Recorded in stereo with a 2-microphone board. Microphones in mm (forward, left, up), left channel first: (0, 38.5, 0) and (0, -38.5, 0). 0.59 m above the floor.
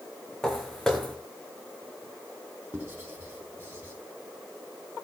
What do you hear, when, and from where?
0.4 s footsteps: 5° left (ahead or behind), 2.5 m
2.7 s writing: 25° right (ahead or behind), 4.5 m